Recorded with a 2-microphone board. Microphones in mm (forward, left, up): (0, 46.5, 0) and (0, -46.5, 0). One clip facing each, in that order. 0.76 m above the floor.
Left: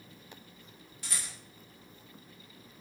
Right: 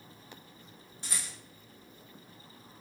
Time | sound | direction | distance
1.0 | a rattle | 25° right (ahead or behind) | 1.7 m